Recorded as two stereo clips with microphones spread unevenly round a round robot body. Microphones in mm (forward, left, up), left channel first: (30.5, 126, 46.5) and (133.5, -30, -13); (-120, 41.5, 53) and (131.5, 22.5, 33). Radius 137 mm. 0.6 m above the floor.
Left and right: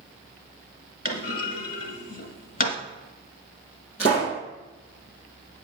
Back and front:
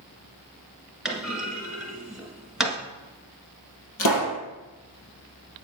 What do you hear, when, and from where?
1.1 s a clunk: 85° left, 1.5 m
4.0 s a pop: straight behind, 2.5 m